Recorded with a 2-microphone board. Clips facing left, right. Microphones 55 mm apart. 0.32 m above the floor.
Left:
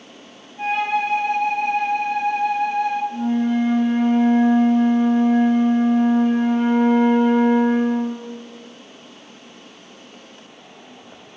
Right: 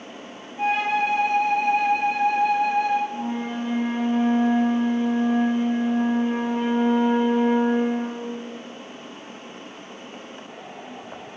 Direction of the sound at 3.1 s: 85° left.